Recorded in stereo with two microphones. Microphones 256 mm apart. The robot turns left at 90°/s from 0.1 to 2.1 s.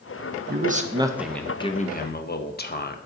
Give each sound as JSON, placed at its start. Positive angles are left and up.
{"t": 0.5, "sound": "a man speaking", "azimuth_deg": -110, "distance_m": 0.6}